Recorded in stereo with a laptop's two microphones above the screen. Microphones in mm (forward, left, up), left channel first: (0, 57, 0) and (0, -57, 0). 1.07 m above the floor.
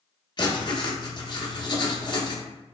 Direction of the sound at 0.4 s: 40° left (ahead or behind).